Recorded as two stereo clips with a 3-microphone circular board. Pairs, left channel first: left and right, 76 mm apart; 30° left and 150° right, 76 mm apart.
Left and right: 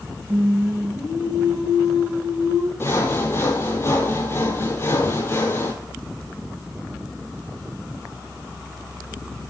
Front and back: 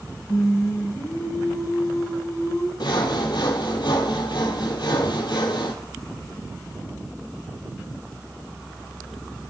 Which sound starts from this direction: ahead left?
Sawing, at 2.8 s.